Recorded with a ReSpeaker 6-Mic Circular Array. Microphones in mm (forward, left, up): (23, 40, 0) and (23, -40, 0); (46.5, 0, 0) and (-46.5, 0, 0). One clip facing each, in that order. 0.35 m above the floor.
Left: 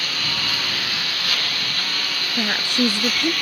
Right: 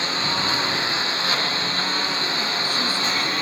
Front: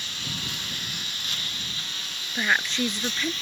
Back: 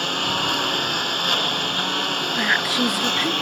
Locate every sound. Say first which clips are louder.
0.0 s a lawn mower: right 3 dB, back 14 dB; 155° right
2.4 s a woman speaking: left 3 dB, back 2 dB; 100° left